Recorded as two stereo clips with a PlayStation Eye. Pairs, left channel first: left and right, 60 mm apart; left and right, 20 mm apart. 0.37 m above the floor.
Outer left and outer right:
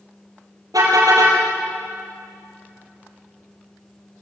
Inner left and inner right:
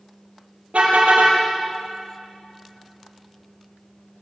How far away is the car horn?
About 5.5 m.